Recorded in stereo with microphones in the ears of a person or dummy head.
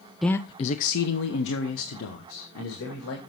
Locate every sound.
0.2 s a man speaking: centre (ahead or behind), 0.5 m; by 3.2 s 85° left, 2.5 m